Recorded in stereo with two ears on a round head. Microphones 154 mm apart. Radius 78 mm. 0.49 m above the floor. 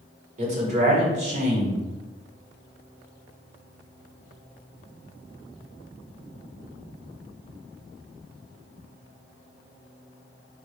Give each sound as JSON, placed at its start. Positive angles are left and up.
{"t": 0.4, "sound": "a man speaking", "side_deg": -45, "distance_m": 1.3}